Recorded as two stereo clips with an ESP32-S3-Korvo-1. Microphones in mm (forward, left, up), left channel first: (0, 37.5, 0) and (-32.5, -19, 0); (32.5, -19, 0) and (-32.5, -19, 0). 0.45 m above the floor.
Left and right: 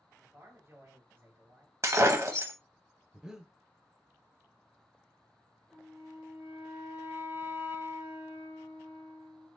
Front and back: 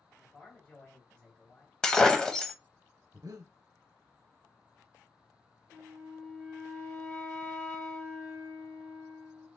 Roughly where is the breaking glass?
Right.